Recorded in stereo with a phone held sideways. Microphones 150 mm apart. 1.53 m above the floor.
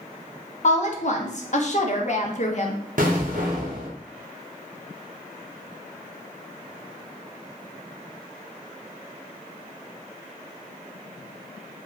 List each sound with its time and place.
0.6 s a woman speaking: 50° left (ahead or behind), 0.5 m
3.0 s an explosion: 65° right (ahead or behind), 0.7 m